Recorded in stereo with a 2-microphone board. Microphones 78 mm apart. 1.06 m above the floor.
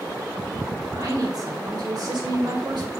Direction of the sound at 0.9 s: 55° right (ahead or behind).